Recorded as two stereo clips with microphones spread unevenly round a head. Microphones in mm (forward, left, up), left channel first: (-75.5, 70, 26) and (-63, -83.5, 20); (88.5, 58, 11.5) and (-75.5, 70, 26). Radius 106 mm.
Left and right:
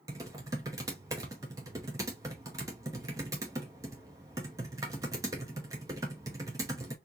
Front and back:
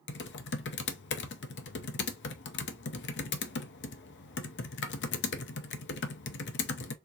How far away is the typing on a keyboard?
About 0.6 m.